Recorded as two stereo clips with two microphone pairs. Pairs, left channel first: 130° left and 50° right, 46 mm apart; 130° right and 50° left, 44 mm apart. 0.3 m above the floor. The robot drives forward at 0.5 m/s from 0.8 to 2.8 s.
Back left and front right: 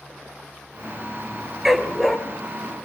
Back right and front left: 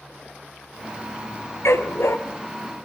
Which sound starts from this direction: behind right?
A dog barking, at 1.6 s.